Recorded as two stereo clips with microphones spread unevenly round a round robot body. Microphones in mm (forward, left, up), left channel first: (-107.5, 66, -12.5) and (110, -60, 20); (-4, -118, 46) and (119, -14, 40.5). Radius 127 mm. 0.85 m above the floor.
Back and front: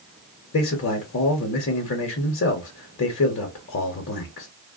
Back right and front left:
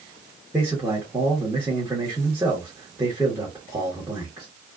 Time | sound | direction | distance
0.5 | a man speaking | 120° left | 0.7 m